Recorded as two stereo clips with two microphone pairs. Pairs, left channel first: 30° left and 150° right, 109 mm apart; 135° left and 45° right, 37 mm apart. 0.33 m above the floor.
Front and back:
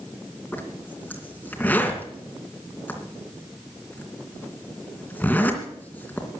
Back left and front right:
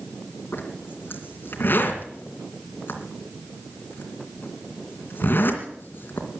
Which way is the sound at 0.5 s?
105° left.